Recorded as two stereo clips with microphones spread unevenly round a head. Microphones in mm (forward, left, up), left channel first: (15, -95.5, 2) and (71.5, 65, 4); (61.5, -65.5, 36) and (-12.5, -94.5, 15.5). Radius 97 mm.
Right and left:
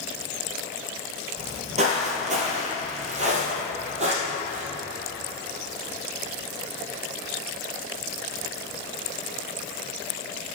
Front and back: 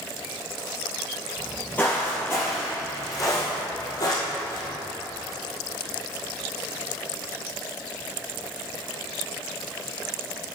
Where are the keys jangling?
No keys jangling in this recording.